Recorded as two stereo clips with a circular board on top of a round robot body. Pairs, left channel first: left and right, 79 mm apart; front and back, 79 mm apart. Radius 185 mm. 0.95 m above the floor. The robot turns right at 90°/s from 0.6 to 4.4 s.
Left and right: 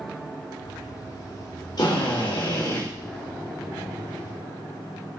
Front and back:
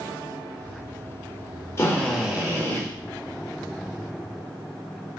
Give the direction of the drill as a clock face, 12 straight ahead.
10 o'clock.